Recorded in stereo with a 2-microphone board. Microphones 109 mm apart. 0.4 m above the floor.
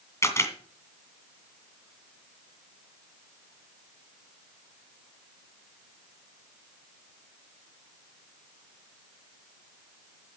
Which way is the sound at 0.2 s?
25° left (ahead or behind).